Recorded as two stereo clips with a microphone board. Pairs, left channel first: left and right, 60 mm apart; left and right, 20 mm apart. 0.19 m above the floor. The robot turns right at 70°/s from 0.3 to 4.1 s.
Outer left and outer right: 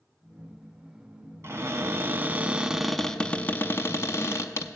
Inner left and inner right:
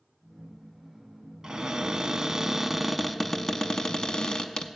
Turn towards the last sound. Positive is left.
turn(degrees=80)